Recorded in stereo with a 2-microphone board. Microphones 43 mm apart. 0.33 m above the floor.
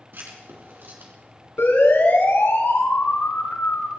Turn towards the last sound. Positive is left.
turn(degrees=60)  # may be behind; listen again after turning